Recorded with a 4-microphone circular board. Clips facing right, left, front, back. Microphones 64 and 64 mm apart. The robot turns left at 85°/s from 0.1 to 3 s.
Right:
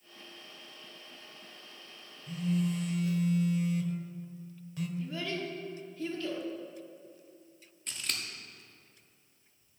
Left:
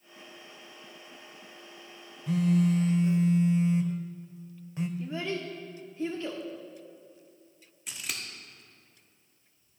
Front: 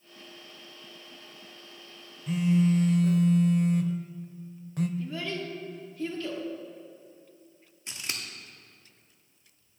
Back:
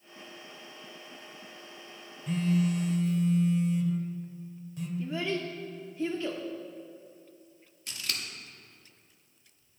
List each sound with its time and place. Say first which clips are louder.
2.3 s a phone buzzing: left 7 dB, front 3 dB; 90° left, 0.5 m; by 4.9 s 25° left, 0.5 m
5.0 s a child speaking: left 2 dB, back 2 dB; 130° left, 0.8 m
7.9 s scissors: even, even; 20° left, 1.0 m